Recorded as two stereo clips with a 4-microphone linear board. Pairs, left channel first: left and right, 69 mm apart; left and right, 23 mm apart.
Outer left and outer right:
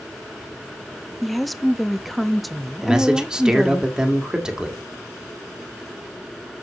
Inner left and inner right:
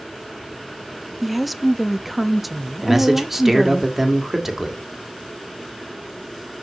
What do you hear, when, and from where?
1.2 s a woman speaking: centre (ahead or behind), 0.5 m
2.8 s a man speaking: 10° right (ahead or behind), 1.4 m